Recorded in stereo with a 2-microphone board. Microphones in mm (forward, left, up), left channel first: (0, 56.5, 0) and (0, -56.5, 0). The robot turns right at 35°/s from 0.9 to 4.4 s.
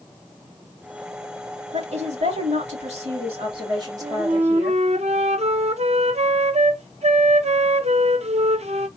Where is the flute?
55° right (ahead or behind), 0.7 m; by 8.9 s 65° right (ahead or behind), 0.7 m.